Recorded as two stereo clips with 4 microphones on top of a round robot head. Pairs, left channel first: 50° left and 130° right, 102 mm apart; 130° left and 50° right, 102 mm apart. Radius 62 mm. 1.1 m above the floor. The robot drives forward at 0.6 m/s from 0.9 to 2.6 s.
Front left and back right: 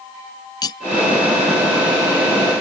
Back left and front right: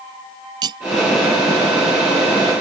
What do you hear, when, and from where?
0.6 s cutlery clinking: straight ahead